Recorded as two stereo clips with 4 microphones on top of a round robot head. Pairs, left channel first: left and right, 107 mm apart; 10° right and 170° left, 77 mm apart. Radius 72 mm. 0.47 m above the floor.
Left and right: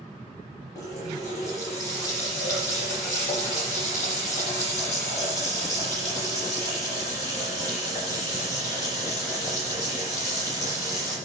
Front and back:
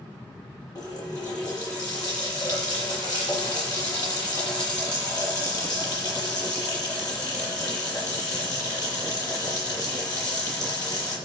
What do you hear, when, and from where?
0.8 s a running tap: 25° left, 7.5 m